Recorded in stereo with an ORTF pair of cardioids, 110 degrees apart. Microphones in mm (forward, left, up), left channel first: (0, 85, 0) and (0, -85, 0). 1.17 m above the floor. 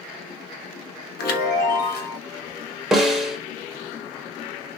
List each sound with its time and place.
1.2 s a chime: 70° left, 0.6 m
2.9 s a snare drum: 5° right, 0.6 m